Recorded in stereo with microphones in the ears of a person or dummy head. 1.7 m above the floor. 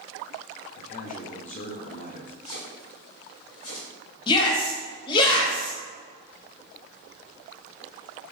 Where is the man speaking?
40° left (ahead or behind), 1.0 m.